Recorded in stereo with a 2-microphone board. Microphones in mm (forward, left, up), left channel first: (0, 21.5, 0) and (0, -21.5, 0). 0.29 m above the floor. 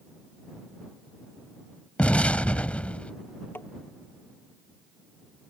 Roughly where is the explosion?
Left.